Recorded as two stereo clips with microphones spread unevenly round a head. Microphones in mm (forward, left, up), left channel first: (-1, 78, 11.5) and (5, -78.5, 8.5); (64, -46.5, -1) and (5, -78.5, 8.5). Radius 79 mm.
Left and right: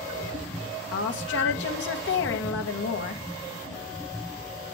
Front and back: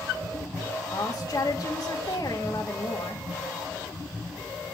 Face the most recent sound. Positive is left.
turn(degrees=95)